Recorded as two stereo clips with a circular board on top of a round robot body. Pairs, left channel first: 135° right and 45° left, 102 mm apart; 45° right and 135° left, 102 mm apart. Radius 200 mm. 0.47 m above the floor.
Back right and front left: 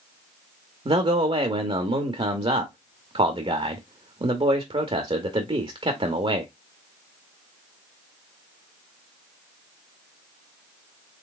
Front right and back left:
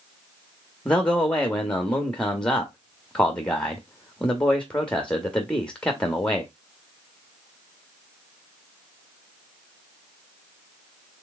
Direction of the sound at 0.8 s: 35° left.